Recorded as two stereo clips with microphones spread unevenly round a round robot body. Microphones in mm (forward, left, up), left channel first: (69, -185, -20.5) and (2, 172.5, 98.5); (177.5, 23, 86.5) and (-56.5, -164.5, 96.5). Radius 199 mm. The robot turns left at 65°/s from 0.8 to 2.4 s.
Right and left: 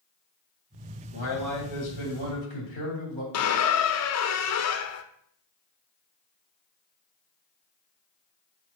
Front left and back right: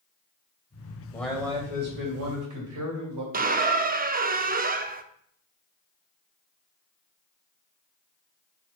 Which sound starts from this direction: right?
A squeak, at 3.3 s.